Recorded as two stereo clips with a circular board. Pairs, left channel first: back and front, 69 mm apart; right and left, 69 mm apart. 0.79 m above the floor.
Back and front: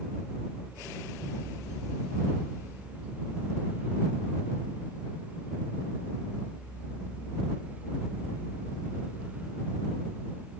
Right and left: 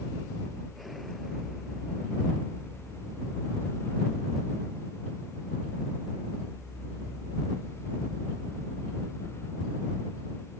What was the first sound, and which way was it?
Only background noise.